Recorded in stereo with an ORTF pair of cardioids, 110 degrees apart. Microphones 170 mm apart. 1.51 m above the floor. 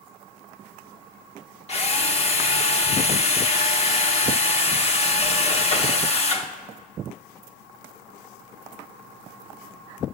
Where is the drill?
35° left, 1.6 m.